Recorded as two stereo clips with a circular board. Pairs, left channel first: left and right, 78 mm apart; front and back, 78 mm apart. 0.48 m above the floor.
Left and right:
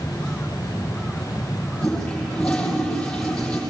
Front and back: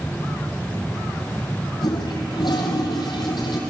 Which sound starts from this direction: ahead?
A toilet flushing, at 1.8 s.